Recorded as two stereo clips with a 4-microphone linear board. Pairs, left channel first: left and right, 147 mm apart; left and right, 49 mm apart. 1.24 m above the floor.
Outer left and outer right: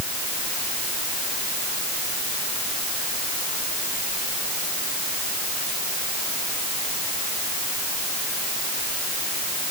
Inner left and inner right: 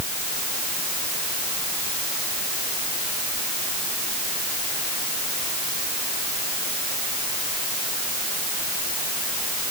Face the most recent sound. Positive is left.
No sound to turn to.